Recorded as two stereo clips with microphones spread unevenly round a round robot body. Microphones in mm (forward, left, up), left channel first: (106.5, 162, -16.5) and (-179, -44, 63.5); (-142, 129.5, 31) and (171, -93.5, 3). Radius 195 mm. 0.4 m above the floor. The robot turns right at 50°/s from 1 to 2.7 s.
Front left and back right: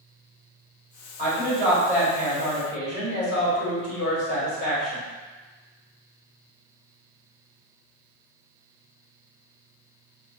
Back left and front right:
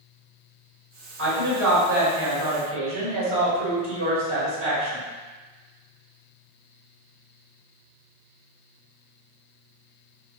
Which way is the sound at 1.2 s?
75° right.